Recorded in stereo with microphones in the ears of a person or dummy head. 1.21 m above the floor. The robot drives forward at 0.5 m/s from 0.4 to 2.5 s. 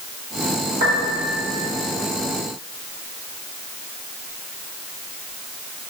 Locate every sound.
0.8 s a piano: 55° right (ahead or behind), 1.8 m; by 1.3 s 60° right (ahead or behind), 1.8 m